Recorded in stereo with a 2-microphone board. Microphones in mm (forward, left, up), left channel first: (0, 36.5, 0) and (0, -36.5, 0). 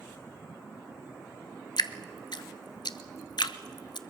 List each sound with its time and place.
1.8 s dripping: 75° left (ahead or behind), 0.7 m